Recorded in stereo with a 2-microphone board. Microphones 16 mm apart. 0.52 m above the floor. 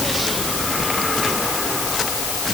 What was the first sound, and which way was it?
Only background noise.